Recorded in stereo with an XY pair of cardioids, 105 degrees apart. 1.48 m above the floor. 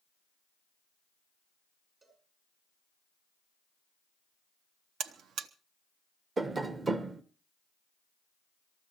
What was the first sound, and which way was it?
A cowbell, 35° right.